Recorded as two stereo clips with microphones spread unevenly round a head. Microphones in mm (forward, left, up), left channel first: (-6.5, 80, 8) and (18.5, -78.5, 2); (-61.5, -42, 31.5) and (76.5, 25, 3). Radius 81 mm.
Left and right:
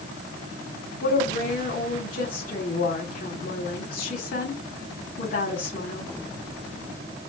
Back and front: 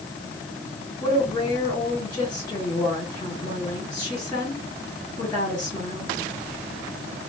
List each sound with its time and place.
1.0 s a woman speaking: 140° left, 3.5 m